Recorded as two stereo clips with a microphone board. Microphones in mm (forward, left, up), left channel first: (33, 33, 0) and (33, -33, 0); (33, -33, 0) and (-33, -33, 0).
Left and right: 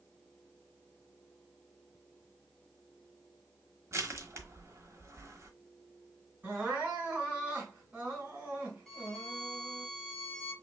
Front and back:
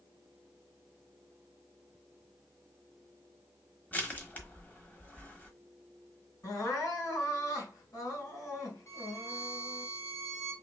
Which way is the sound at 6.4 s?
25° right.